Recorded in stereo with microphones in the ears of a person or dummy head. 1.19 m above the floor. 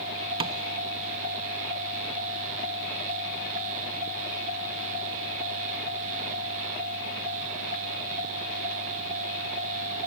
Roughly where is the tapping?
Right.